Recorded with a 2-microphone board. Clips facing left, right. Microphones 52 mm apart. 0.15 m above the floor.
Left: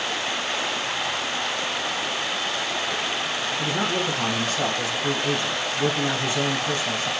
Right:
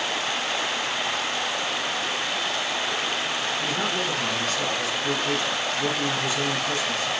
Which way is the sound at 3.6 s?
40° left (ahead or behind).